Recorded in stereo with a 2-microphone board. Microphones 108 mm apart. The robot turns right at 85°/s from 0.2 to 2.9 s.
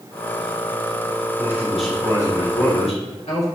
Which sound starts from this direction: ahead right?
A man speaking, at 1.4 s.